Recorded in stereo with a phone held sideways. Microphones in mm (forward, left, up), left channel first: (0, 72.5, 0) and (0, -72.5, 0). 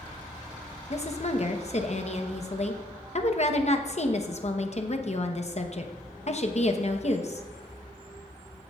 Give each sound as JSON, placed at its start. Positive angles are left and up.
{"t": 0.9, "sound": "a woman speaking", "side_deg": 50, "distance_m": 1.0}